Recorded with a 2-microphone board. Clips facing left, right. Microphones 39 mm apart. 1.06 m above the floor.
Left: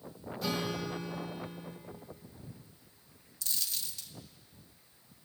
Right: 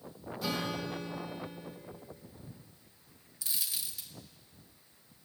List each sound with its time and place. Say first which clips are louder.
0.4 s a guitar: even; 5° right (ahead or behind), 0.8 m
3.4 s a dropped coin: even; 15° right (ahead or behind), 0.5 m